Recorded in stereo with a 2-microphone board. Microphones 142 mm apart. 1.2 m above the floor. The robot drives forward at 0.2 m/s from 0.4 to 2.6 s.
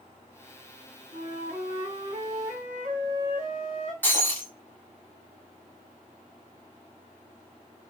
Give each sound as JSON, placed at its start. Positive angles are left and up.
{"t": 1.1, "sound": "a flute", "side_deg": -70, "distance_m": 1.2}
{"t": 4.0, "sound": "breaking glass", "side_deg": 15, "distance_m": 1.0}